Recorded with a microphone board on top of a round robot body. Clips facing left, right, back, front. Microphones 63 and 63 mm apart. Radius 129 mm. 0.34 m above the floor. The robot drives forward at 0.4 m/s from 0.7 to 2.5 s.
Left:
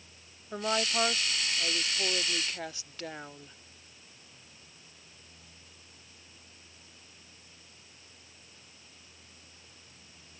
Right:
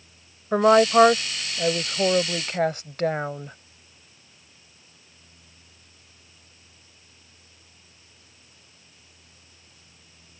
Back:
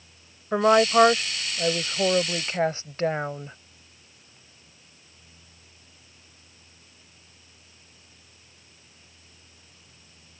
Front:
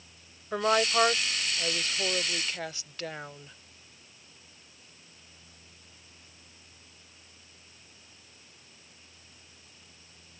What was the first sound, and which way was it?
A woman speaking, 110° right.